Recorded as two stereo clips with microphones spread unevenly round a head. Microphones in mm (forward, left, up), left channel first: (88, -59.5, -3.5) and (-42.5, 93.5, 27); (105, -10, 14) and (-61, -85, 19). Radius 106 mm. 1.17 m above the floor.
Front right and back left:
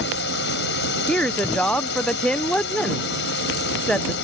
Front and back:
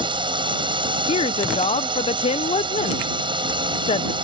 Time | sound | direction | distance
0.0 | a drone | 90° right | ?
1.1 | a woman speaking | 15° left | ?